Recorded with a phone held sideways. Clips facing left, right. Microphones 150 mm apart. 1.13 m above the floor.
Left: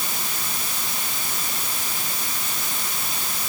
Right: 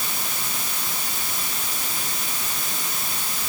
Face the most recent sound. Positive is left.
No sound to turn to.